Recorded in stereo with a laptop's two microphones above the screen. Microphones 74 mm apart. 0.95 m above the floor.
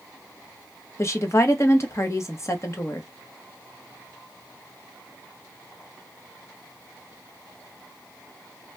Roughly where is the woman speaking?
Left.